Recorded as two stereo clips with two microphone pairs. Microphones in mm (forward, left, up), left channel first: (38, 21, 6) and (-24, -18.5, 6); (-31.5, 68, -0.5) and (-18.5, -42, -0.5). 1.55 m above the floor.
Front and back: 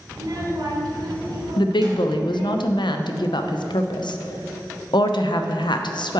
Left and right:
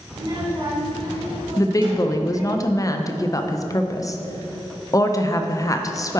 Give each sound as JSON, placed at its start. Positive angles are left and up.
{"t": 0.1, "sound": "a child speaking", "azimuth_deg": -115, "distance_m": 1.9}
{"t": 1.6, "sound": "a woman speaking", "azimuth_deg": 40, "distance_m": 0.6}